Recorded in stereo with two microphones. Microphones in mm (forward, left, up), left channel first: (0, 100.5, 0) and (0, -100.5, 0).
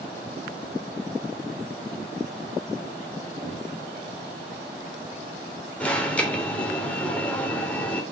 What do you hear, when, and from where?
3.4 s knocking: 15° right (ahead or behind), 4.5 m
5.8 s an alarm: 5° left (ahead or behind), 3 m